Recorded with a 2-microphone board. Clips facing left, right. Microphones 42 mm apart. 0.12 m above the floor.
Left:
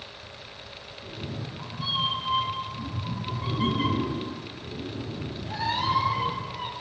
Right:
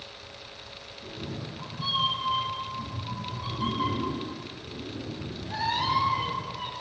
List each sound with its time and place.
1.0 s a cat meowing: centre (ahead or behind), 2.5 m; by 6.7 s 25° left (ahead or behind), 4 m